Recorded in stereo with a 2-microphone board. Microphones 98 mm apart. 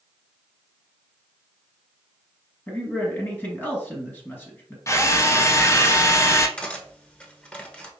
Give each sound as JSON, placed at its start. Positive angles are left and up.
{"t": 2.7, "sound": "a man speaking", "side_deg": 20, "distance_m": 1.7}
{"t": 4.9, "sound": "a drill", "side_deg": 30, "distance_m": 0.6}
{"t": 6.6, "sound": "cutlery clinking", "side_deg": 10, "distance_m": 0.9}